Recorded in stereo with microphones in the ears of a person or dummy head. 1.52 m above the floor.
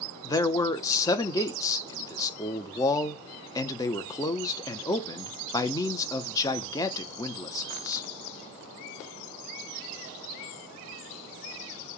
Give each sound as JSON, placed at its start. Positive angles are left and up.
{"t": 0.2, "sound": "a man speaking", "side_deg": 15, "distance_m": 0.8}